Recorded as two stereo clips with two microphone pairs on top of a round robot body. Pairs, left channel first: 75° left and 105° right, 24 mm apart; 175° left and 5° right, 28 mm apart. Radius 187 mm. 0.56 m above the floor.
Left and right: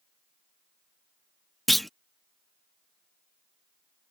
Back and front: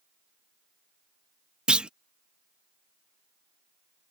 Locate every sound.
1.7 s a clunk: 10° right